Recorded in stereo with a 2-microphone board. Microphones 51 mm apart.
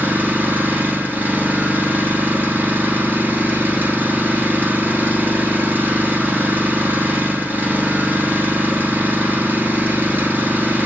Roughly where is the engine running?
Right.